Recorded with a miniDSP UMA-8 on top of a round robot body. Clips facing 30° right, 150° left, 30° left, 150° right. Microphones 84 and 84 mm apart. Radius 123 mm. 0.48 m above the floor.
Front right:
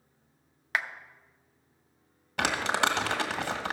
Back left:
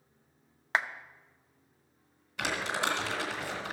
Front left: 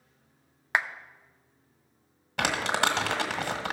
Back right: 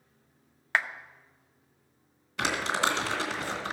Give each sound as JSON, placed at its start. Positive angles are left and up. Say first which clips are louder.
{"t": 0.7, "sound": "a clap", "louder": "back left 1 dB, front left 1 dB", "azimuth_deg": 100, "distance_m": 0.7}
{"t": 2.4, "sound": "crumpling", "louder": "front right 5 dB, front left 1 dB", "azimuth_deg": 0, "distance_m": 1.7}